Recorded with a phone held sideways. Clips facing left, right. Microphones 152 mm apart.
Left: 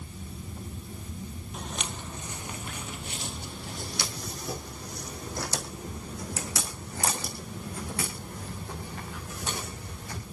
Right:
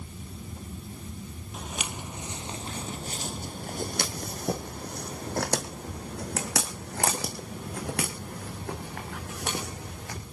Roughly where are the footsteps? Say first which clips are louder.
Right 1 dB; centre.